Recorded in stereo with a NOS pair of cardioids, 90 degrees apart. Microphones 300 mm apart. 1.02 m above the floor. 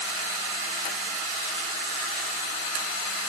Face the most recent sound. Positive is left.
No sound to turn to.